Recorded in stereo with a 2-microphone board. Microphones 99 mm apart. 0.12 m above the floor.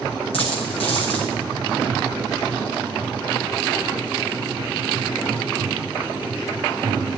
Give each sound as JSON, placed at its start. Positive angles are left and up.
{"t": 0.3, "sound": "a dropped coin", "side_deg": 75, "distance_m": 5.5}